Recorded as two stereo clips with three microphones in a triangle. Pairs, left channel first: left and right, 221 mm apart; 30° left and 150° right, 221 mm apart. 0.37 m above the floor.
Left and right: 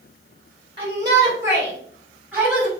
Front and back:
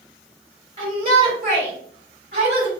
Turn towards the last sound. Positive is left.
turn(degrees=-175)